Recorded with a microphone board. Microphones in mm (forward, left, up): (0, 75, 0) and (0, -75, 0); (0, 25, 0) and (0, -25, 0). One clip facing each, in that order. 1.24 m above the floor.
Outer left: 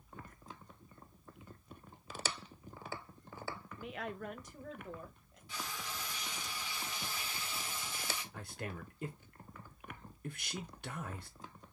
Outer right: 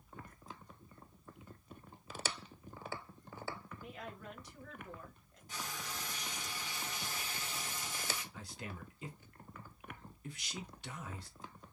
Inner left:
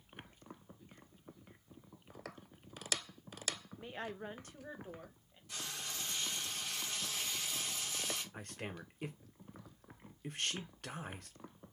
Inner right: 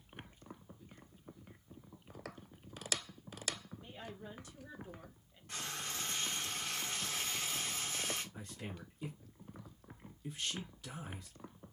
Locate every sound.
3.8 s a woman speaking: 85° left, 0.6 m; by 5.4 s 15° left (ahead or behind), 1.1 m
5.5 s frying: 45° right (ahead or behind), 1.0 m
8.3 s a man speaking: 55° left (ahead or behind), 0.8 m